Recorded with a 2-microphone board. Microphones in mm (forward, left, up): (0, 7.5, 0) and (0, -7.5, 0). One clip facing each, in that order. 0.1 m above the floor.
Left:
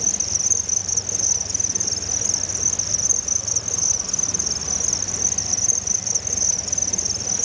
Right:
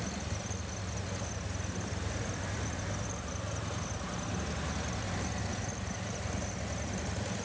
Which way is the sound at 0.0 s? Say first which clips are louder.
Left 16 dB; 75° left (ahead or behind).